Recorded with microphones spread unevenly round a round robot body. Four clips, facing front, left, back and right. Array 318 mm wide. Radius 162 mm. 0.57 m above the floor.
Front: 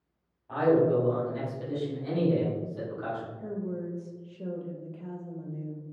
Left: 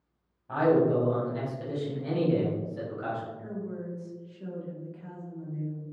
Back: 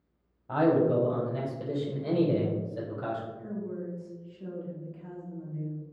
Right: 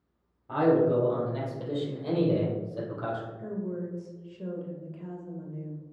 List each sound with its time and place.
0.5 s a man speaking: 155° right, 2 m; by 3.3 s 135° right, 3.5 m
3.4 s a woman speaking: 40° right, 1.8 m